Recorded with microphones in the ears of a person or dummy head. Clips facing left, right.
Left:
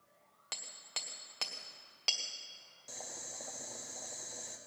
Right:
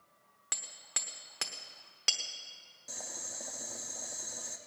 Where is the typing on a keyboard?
No typing on a keyboard in this recording.